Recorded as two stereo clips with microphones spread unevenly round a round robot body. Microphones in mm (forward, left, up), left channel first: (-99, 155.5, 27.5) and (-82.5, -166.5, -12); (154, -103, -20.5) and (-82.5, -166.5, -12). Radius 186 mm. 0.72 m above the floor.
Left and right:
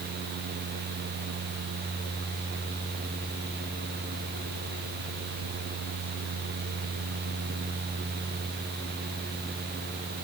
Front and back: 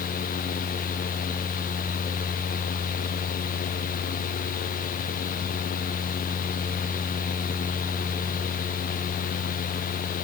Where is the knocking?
I don't hear knocking.